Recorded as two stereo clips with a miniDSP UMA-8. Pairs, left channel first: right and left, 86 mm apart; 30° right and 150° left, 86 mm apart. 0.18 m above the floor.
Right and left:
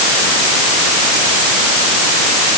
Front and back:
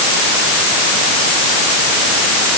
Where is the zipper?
I don't hear a zipper.